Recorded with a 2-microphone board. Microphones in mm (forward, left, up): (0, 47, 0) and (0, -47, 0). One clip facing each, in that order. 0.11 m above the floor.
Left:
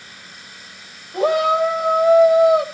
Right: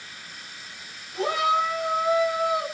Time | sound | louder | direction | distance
1.1 | a shout | left 7 dB | 70° left (ahead or behind) | 8.5 m